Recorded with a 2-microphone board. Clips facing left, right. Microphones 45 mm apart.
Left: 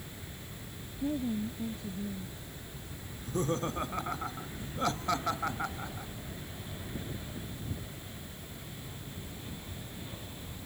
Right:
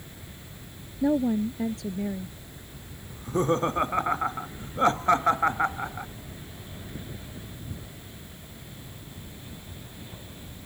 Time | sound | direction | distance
1.0 | a woman speaking | 80° right | ?
3.1 | laughter | 35° right (ahead or behind) | ?